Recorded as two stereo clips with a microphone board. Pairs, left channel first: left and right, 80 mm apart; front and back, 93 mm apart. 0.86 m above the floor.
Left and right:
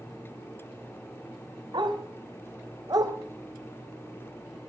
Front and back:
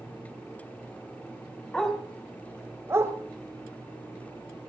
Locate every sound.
1.7 s a dog barking: 80° right, 3 m; by 4.7 s 175° right, 3 m